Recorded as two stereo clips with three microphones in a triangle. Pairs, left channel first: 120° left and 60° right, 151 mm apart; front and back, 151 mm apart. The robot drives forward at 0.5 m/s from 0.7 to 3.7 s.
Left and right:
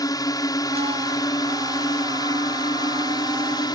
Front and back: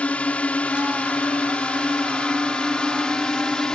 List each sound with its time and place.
0.0 s a drone: 75° left; by 3.8 s 80° left